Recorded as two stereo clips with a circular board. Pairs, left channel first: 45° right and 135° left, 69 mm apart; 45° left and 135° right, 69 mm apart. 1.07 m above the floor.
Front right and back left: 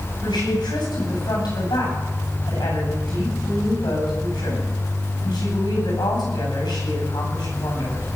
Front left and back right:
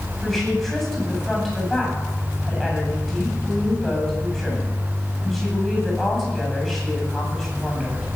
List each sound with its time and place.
0.2 s a woman speaking: 40° right, 8.5 m